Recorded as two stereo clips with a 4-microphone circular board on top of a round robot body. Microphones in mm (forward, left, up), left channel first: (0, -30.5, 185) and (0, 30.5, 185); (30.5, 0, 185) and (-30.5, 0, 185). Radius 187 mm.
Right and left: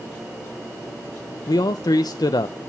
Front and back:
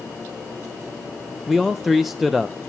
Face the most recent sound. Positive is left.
turn(degrees=-90)